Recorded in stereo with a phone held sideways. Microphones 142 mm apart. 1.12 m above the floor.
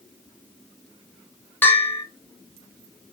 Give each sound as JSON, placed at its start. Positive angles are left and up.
{"t": 1.6, "sound": "a bell", "side_deg": 15, "distance_m": 2.0}